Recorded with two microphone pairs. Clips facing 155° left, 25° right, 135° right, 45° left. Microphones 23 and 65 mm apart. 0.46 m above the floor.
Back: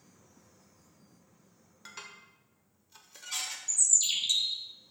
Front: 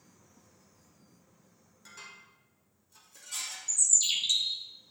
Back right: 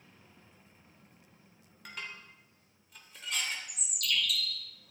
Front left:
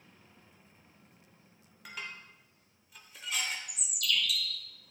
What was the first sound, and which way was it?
Dishes clattering, 130° left.